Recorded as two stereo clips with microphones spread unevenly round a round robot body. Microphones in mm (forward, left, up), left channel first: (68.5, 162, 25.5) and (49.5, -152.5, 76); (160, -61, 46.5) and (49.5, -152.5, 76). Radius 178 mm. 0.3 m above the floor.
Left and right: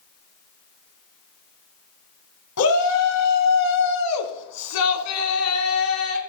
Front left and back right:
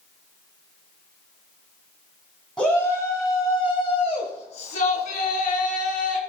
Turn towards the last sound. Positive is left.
turn(degrees=50)